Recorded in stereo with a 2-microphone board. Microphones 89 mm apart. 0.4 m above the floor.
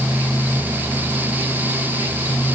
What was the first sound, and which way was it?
Only background noise.